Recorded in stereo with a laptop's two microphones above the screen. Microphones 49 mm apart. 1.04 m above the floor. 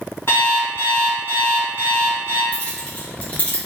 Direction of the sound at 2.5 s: 30° left (ahead or behind).